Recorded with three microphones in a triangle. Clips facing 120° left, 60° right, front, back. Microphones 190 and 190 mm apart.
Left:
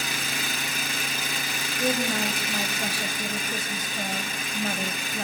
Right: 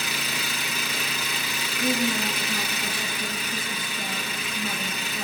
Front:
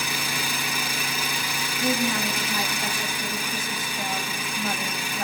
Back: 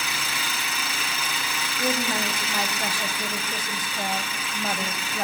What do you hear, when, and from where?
0.0 s an engine running: 75° left, 3.5 m
1.8 s a woman speaking: 130° left, 3.5 m